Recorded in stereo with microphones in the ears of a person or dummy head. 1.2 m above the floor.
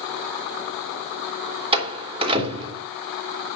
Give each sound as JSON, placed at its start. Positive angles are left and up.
{"t": 1.7, "sound": "a door slam", "side_deg": -30, "distance_m": 2.5}